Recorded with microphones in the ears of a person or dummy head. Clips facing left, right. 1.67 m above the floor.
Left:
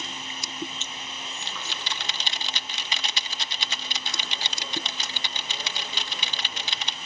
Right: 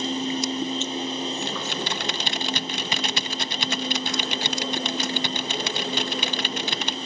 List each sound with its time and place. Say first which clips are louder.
0.0 s a machine running: right 14 dB; 25° right (ahead or behind)
1.4 s typing on a keyboard: right 10 dB; 40° right (ahead or behind)